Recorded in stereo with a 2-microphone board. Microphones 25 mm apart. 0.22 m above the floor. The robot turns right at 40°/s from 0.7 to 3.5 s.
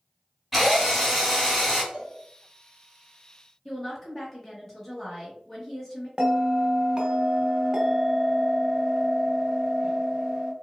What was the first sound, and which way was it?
A drill, 20° right.